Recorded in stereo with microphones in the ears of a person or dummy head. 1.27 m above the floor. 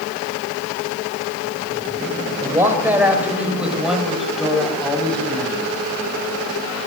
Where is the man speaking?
15° right (ahead or behind), 6 m; by 5.7 s 5° left (ahead or behind), 9 m.